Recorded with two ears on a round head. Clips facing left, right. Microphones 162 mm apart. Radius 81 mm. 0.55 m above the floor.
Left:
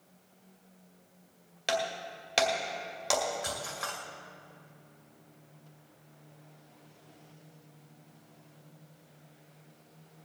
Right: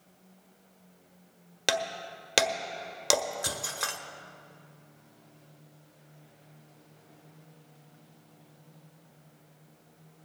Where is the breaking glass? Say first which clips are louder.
Even; 60° right (ahead or behind), 1.1 m.